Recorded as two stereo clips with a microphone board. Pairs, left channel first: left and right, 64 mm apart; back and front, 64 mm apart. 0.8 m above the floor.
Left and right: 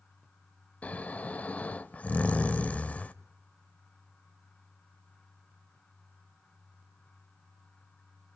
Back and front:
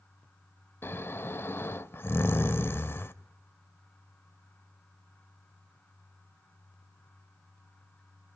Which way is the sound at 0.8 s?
150° left.